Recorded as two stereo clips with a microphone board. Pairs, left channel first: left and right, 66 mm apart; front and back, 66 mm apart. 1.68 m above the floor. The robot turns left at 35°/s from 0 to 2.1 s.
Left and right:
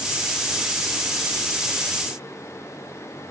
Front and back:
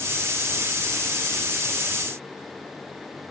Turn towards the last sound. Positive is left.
No sound to turn to.